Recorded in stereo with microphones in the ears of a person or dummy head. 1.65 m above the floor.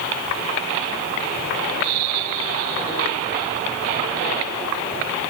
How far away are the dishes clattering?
No dishes clattering in this recording.